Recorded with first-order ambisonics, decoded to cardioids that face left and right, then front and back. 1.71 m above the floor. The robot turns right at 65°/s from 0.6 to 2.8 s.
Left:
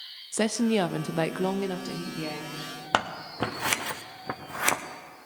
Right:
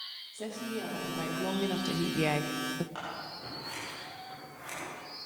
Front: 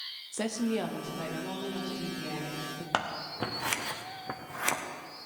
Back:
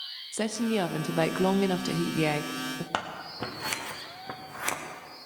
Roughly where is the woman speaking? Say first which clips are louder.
Left 14 dB, back 3 dB; left.